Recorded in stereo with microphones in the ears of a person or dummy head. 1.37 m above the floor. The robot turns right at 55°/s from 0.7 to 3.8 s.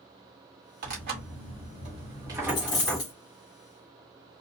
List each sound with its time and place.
0.8 s tearing paper: 105° right, 1.1 m; by 3.0 s 15° left, 1.1 m
2.5 s a dropped coin: 45° left, 1.6 m; by 3.1 s 80° left, 1.6 m